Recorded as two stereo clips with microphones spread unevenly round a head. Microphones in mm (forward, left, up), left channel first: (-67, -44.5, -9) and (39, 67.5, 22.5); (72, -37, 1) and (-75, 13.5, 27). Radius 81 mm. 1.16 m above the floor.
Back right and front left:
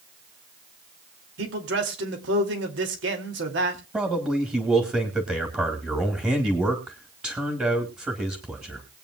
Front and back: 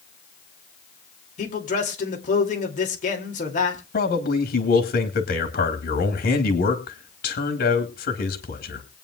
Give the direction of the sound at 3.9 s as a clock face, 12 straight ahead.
1 o'clock.